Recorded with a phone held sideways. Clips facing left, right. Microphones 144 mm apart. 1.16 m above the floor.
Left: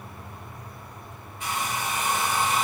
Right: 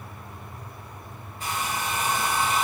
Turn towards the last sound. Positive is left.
turn(degrees=-35)  # may be behind; listen again after turning